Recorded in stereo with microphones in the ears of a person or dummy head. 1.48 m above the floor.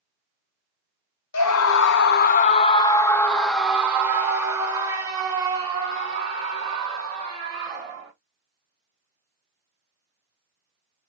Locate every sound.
1.3 s a scream: 80° left, 0.9 m; by 8.1 s 30° right (ahead or behind), 3.5 m